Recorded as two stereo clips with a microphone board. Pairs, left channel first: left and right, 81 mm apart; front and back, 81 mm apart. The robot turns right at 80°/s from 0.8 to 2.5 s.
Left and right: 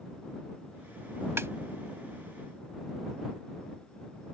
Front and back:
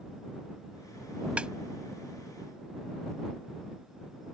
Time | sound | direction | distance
1.4 | a snare drum | 120° right | ?